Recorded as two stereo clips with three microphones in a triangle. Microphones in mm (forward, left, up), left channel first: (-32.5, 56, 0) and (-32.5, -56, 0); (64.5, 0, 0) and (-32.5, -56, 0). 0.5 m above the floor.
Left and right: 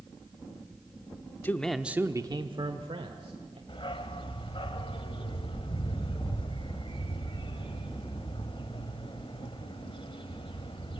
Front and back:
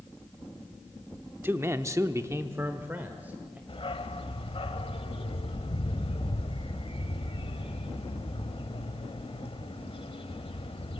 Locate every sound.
1.4 s a man speaking: 150° left, 0.8 m; by 3.6 s 75° right, 1.8 m
3.7 s a dog barking: 55° left, 1.1 m